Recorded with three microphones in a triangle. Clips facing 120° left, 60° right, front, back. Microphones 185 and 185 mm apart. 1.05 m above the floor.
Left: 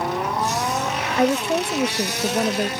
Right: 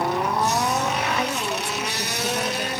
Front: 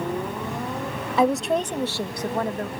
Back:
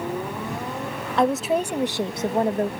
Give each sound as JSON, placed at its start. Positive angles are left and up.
{"t": 1.2, "sound": "a woman speaking", "azimuth_deg": 85}